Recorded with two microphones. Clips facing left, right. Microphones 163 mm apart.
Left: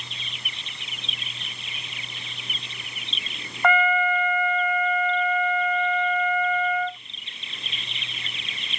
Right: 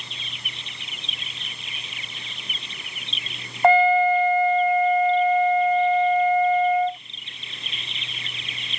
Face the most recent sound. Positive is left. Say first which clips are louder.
# right 6 dB
turn(degrees=-30)  # may be behind; listen again after turning